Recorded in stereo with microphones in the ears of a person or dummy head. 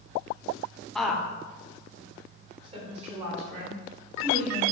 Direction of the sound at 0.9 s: 5° left (ahead or behind).